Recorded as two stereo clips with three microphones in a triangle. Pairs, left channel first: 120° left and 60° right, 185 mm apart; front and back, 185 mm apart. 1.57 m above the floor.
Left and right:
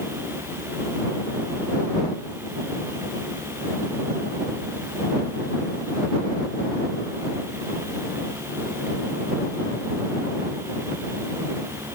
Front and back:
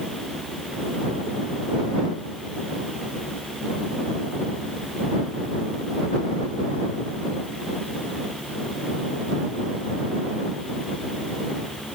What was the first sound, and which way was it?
Only background noise.